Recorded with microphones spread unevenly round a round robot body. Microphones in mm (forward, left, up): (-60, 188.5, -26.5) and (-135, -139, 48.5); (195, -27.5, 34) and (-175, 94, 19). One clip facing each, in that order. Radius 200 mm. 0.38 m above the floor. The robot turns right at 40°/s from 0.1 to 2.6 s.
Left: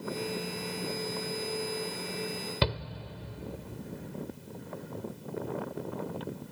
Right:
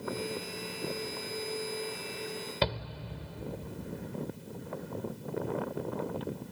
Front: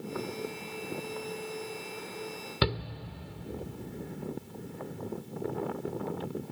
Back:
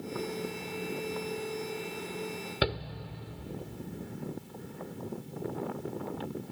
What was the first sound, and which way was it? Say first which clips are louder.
A shout: even, front 1 dB; 60° left.